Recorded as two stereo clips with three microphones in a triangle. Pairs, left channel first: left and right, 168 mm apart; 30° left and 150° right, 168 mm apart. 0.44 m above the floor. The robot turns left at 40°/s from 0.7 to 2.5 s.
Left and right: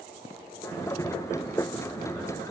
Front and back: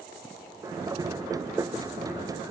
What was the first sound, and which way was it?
Only background noise.